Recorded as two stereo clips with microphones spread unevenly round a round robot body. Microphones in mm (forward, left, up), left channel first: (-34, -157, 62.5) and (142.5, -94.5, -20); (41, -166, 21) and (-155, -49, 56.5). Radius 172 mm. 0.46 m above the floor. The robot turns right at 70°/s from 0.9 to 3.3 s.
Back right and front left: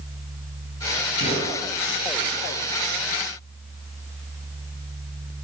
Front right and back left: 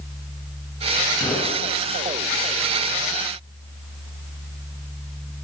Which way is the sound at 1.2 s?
120° right.